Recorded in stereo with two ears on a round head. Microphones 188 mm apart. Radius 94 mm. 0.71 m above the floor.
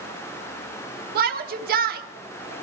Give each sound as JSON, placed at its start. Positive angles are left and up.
{"t": 1.1, "sound": "a shout", "side_deg": -45, "distance_m": 1.2}